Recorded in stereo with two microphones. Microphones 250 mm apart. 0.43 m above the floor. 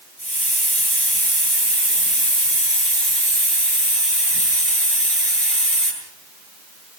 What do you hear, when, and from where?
0.2 s a hiss: 30° left (ahead or behind), 8.5 m